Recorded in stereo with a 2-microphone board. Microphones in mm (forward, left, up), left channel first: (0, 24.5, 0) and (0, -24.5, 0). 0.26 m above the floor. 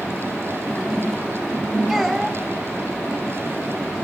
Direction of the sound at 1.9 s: 10° right (ahead or behind).